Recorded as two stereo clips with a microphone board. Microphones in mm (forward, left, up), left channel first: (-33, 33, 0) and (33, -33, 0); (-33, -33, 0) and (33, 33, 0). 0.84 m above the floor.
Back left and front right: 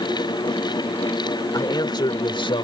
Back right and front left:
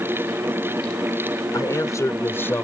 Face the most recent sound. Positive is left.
turn(degrees=155)